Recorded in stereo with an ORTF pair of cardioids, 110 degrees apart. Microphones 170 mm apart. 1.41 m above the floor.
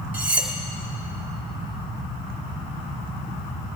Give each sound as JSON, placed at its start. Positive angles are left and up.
{"t": 0.1, "sound": "cutlery clinking", "azimuth_deg": -10, "distance_m": 2.5}